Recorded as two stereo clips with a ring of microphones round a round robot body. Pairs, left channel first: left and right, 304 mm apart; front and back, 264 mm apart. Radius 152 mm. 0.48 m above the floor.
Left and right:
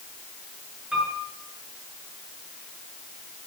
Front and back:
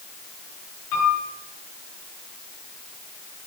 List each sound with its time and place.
0.9 s a piano: straight ahead, 7.5 m